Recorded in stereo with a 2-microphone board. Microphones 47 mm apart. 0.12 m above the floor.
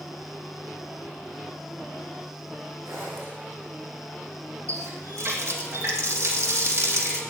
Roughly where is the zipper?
Right.